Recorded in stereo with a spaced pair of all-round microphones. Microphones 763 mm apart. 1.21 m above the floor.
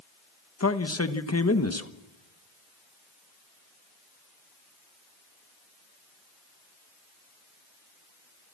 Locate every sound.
0.6 s a man speaking: 20° left (ahead or behind), 1.1 m